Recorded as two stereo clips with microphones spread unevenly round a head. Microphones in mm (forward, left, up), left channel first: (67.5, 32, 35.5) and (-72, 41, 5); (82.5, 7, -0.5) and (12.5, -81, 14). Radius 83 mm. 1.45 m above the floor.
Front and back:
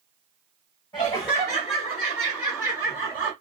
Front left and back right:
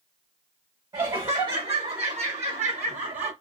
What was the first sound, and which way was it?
Laughter, 80° right.